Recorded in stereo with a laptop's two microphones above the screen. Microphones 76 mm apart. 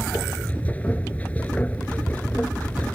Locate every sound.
0.0 s a machine running: 20° left (ahead or behind)